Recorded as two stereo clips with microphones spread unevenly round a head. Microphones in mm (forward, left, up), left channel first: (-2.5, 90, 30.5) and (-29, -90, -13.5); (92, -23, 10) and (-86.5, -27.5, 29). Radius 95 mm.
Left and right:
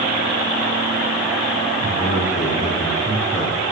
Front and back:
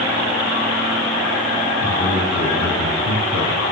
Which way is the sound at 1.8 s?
15° left.